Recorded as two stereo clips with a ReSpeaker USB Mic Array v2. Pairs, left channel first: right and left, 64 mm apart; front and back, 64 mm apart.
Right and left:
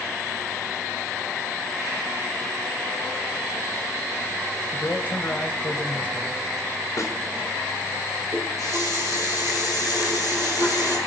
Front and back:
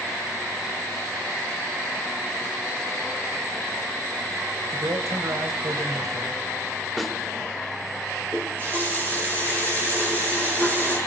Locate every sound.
4.7 s a man speaking: 155° right, 2.5 m
7.0 s a snare drum: 95° right, 1.9 m
8.3 s a running tap: 120° left, 8 m